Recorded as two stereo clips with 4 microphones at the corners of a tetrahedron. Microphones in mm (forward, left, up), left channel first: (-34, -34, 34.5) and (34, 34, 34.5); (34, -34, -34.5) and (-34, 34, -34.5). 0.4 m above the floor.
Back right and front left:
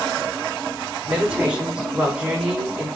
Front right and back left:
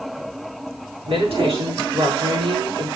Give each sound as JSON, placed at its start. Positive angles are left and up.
{"t": 1.1, "sound": "a woman speaking", "azimuth_deg": 125, "distance_m": 4.5}